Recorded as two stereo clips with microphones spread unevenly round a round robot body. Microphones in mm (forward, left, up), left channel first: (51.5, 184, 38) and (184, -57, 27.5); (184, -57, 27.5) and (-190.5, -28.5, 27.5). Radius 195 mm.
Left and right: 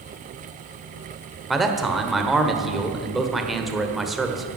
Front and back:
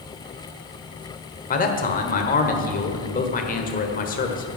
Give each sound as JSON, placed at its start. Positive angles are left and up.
{"t": 1.5, "sound": "a man speaking", "azimuth_deg": 25, "distance_m": 1.2}